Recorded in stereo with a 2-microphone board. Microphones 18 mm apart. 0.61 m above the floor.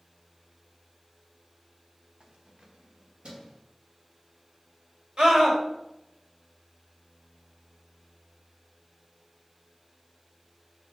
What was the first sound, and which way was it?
Keys jangling, 55° right (ahead or behind).